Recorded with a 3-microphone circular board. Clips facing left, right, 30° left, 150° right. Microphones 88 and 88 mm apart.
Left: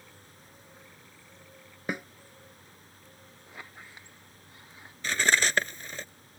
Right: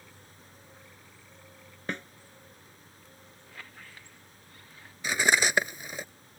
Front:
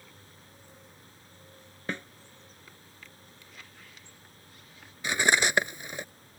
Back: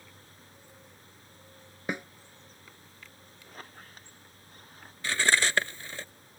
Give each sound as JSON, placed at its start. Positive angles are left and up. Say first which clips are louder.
{"t": 1.9, "sound": "a snare drum", "louder": "left 2 dB, back 2 dB", "azimuth_deg": 155}
{"t": 3.5, "sound": "a squeak", "louder": "left 2 dB, back 6 dB", "azimuth_deg": 160}
{"t": 5.0, "sound": "cutlery clinking", "louder": "right 1 dB, front 1 dB", "azimuth_deg": -25}